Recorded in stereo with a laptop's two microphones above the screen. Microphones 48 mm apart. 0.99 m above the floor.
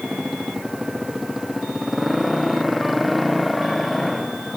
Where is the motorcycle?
10° right (ahead or behind); by 4.6 s 5° left (ahead or behind).